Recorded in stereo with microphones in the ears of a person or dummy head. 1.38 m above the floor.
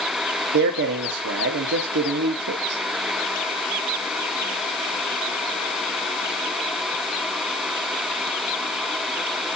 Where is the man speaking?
55° right (ahead or behind), 0.6 m.